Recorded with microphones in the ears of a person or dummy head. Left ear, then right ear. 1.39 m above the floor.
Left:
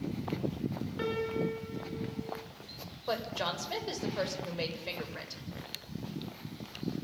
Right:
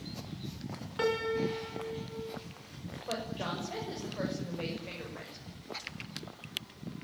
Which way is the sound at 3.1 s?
85° left.